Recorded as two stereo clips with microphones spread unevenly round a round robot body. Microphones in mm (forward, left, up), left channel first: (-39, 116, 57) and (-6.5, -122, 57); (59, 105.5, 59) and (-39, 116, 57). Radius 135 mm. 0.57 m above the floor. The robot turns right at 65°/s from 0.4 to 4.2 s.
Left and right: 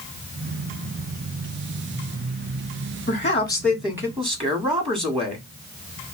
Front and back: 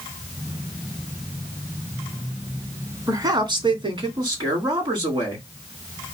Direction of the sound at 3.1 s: 140° left.